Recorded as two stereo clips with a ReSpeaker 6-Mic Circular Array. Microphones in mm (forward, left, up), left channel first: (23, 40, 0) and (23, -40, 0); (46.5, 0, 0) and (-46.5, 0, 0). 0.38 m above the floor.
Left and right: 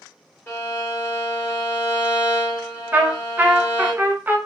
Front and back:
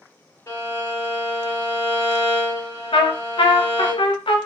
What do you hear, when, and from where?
0.5 s a violin: 45° left, 1.7 m
2.9 s a trumpet: 20° right, 0.7 m